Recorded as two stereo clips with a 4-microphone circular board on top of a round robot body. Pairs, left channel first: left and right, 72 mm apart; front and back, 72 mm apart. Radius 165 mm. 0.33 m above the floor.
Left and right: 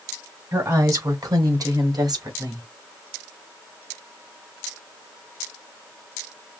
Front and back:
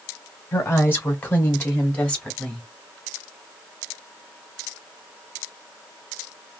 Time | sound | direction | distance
0.5 | a woman speaking | 50° right | 2.5 m